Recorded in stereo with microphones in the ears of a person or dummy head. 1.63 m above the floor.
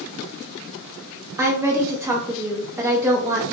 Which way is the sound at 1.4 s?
15° right (ahead or behind).